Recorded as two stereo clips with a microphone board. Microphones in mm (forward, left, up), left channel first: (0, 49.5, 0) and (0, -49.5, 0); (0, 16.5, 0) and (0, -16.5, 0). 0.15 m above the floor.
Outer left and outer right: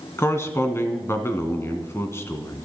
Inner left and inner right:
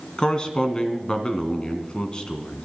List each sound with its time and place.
0.2 s a man speaking: 25° left (ahead or behind), 1.8 m